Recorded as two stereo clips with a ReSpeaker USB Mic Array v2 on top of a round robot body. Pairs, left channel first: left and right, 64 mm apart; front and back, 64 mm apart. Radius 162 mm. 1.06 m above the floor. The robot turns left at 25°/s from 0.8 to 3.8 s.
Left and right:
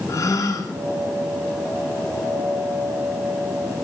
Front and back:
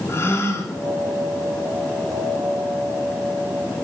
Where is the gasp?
55° left, 1.7 m.